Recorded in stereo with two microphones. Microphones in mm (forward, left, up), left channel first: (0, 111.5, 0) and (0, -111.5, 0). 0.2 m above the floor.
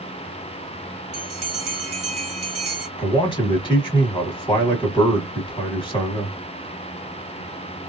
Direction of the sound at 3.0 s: 20° left (ahead or behind).